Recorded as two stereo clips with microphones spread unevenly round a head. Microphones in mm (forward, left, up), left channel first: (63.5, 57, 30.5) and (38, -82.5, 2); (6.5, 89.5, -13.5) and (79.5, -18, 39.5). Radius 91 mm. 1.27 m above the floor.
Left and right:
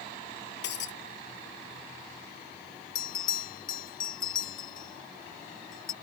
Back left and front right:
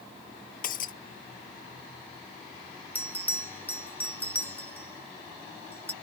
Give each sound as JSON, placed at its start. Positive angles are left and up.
{"t": 0.6, "sound": "breaking glass", "azimuth_deg": 105}
{"t": 3.0, "sound": "a bell", "azimuth_deg": 50}